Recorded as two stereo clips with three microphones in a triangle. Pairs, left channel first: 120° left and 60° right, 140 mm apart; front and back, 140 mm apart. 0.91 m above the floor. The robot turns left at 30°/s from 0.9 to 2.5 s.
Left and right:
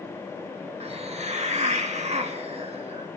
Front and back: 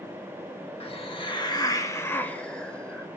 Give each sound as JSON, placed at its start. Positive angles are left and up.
{"t": 0.8, "sound": "a hiss", "azimuth_deg": -35, "distance_m": 0.9}